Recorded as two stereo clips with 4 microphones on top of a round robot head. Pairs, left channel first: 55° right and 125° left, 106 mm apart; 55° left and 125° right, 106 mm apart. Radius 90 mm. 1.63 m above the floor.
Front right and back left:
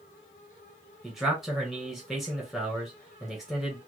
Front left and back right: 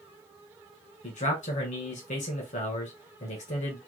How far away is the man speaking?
About 1.8 m.